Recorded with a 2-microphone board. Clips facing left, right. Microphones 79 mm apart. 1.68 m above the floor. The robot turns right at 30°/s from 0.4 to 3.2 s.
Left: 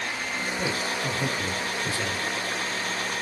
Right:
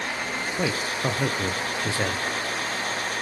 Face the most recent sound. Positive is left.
turn(degrees=-25)